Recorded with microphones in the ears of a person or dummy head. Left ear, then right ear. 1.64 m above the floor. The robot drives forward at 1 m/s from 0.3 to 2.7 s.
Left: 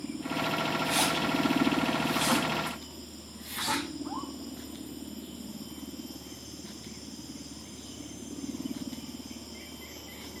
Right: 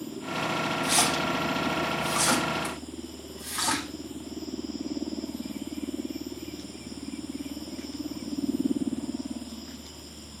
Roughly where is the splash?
Right.